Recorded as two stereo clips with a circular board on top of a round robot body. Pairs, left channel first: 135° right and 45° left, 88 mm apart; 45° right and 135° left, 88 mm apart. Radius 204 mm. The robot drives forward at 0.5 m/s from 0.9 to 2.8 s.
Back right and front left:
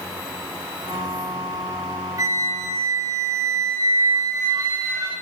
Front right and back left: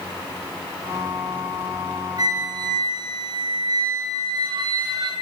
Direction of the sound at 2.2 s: 95° left.